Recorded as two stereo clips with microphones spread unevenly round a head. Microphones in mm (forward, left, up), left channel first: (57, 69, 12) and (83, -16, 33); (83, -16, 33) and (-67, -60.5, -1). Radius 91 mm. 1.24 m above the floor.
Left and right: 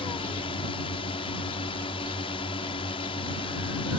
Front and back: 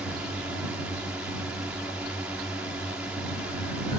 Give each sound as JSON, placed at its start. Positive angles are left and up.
{"t": 0.0, "sound": "a drone", "azimuth_deg": 115}